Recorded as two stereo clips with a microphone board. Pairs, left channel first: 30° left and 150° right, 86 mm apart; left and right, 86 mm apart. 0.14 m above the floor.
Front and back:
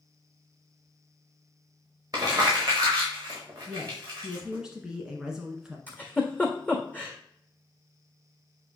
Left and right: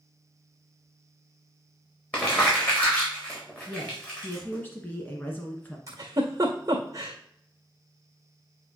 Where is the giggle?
40° right, 1.8 m.